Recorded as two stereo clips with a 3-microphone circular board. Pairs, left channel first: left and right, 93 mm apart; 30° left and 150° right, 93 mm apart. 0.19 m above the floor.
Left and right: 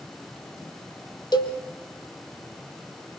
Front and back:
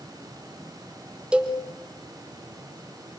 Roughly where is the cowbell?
Behind left.